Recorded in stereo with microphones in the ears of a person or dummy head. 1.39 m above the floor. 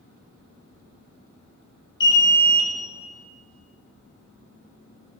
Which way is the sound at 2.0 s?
25° left (ahead or behind).